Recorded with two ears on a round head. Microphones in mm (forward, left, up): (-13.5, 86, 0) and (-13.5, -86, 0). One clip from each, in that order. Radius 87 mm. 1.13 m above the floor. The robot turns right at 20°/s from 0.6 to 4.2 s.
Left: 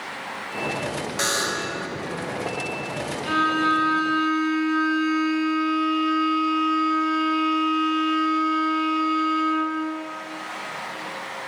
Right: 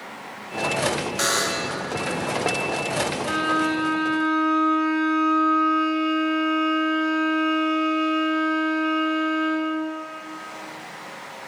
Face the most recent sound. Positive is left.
turn(degrees=40)  # may be behind; listen again after turning